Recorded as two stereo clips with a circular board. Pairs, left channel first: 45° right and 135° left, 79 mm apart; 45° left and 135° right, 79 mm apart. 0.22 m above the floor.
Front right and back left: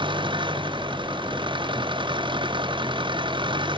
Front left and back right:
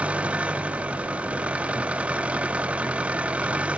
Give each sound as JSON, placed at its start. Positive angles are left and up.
{"t": 0.0, "sound": "an engine running", "azimuth_deg": 150}